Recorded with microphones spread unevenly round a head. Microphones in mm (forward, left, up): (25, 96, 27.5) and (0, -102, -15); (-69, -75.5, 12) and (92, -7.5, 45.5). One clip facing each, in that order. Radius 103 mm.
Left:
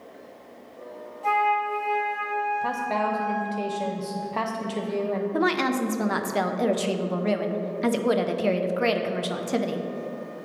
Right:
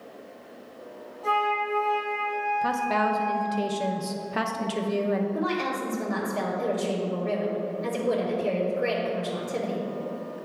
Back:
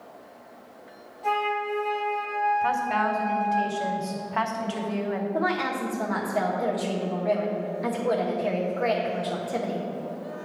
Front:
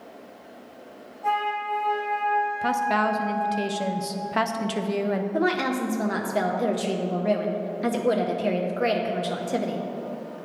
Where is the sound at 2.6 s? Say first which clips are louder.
Right 4 dB, front 2 dB; 30° right, 0.6 m.